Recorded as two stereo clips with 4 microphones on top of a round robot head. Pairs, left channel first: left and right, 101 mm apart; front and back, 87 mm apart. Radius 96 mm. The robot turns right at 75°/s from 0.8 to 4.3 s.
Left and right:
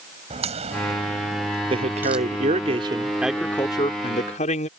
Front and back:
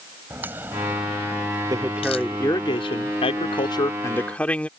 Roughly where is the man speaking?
Behind right.